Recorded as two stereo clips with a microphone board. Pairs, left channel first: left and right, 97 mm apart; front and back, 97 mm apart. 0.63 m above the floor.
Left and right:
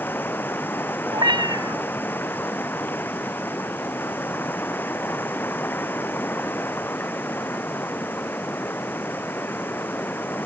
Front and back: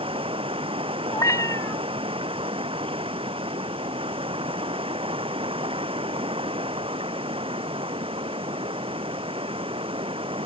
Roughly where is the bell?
No bell in this recording.